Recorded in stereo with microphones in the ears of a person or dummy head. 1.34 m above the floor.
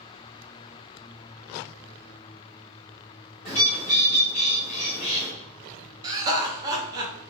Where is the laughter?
20° right (ahead or behind), 0.8 m.